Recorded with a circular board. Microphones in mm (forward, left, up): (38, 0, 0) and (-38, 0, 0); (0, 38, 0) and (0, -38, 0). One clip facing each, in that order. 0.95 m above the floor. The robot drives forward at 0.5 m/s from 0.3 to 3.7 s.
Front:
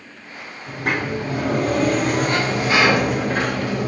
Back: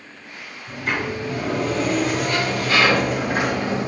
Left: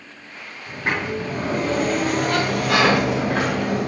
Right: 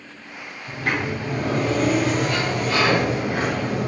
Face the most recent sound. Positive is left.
turn(degrees=115)